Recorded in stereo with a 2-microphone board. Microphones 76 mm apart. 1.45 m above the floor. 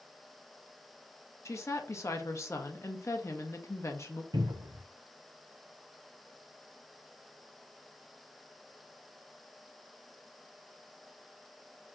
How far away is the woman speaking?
About 0.7 m.